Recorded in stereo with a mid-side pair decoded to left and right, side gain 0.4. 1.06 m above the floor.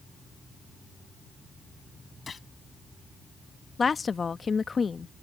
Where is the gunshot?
40° left.